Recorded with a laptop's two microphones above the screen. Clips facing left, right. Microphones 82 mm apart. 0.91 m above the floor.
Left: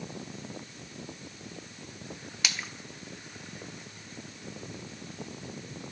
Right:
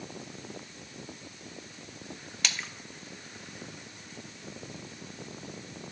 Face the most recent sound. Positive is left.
turn(degrees=5)  # may be behind; listen again after turning